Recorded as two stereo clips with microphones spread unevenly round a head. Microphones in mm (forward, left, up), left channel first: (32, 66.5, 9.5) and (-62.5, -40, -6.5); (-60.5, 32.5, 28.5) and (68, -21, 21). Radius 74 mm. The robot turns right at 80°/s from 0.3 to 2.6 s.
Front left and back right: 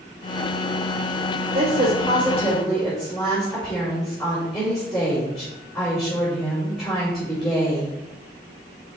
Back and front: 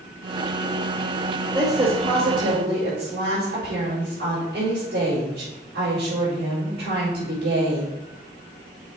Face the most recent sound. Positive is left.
turn(degrees=-35)